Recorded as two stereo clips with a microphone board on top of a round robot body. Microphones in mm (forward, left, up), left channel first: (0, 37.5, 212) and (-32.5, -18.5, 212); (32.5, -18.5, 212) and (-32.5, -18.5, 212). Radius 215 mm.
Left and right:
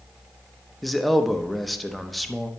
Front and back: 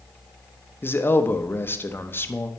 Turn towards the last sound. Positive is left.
turn(degrees=-30)